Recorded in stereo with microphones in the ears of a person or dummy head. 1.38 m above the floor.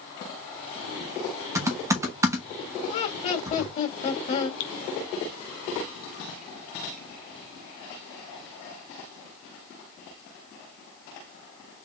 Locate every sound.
1.6 s typing on a keyboard: 20° right (ahead or behind), 0.9 m
2.9 s laughter: 35° left (ahead or behind), 2 m
4.6 s dripping: 75° left (ahead or behind), 0.6 m